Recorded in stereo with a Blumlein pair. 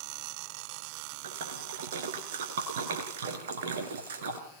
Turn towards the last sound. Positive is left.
turn(degrees=-60)